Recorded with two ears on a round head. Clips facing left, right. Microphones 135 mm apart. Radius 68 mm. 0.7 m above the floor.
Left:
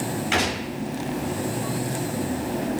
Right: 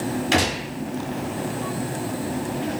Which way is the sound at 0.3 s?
45° right (ahead or behind).